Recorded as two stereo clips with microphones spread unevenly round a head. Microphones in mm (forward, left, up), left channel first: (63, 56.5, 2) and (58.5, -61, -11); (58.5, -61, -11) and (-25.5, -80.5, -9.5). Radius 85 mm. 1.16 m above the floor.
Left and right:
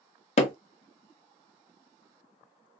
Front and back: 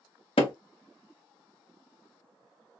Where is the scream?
No scream in this recording.